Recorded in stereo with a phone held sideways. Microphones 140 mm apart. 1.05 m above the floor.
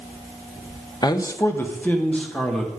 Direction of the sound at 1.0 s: 30° left (ahead or behind).